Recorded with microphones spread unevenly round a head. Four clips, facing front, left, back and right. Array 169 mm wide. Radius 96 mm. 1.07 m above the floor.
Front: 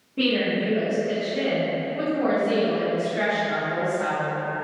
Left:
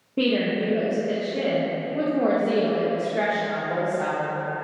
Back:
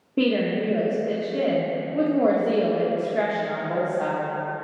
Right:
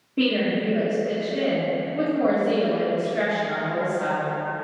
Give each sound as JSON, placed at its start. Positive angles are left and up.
{"t": 0.2, "sound": "a woman speaking", "azimuth_deg": 160, "distance_m": 1.4}